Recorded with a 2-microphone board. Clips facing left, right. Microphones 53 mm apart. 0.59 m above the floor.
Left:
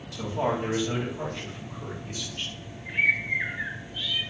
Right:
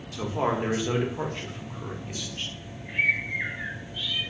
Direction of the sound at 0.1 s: 40° right (ahead or behind).